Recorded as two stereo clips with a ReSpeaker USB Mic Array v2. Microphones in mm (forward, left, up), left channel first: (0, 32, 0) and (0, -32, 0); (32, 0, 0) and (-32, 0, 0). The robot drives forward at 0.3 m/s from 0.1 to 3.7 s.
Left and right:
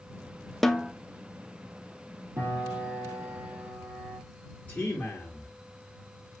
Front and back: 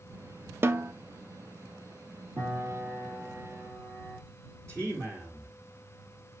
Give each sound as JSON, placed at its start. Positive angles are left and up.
{"t": 0.6, "sound": "a snare drum", "azimuth_deg": 175, "distance_m": 0.5}
{"t": 2.4, "sound": "a piano", "azimuth_deg": -140, "distance_m": 4.0}
{"t": 4.7, "sound": "a man speaking", "azimuth_deg": 150, "distance_m": 1.9}